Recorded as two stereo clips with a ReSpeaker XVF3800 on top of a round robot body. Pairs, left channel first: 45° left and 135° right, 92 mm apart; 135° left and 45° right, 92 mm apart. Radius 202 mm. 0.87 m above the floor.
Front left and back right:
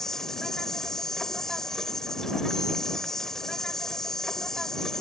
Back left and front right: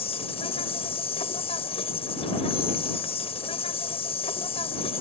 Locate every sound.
0.0 s an insect: 130° left